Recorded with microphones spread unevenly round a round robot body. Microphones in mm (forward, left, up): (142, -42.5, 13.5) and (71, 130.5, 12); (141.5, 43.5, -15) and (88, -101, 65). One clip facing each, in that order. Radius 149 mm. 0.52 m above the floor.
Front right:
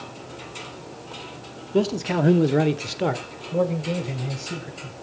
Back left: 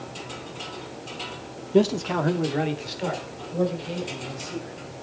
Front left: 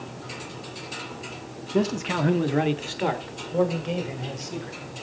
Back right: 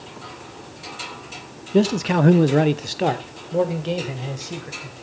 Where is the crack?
I don't hear a crack.